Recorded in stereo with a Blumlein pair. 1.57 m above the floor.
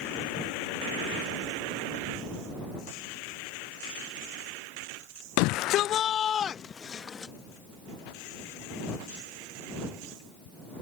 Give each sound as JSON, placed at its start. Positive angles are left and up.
{"t": 5.4, "sound": "a shout", "azimuth_deg": 45}